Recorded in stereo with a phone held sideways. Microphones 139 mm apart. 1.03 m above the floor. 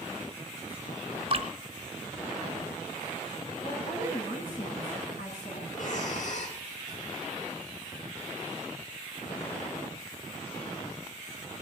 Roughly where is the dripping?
Right.